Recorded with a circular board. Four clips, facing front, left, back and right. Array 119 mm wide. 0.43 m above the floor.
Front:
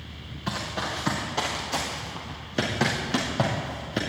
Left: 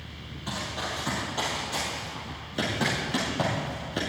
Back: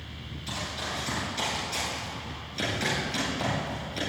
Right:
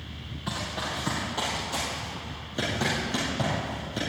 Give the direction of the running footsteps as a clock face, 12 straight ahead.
12 o'clock.